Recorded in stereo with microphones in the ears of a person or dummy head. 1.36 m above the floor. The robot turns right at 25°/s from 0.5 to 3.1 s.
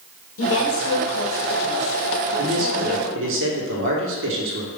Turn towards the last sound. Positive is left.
turn(degrees=-70)  # may be behind; listen again after turning